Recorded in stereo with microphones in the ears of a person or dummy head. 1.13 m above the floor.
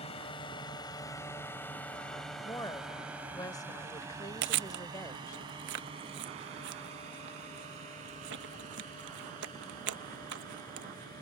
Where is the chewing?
60° right (ahead or behind).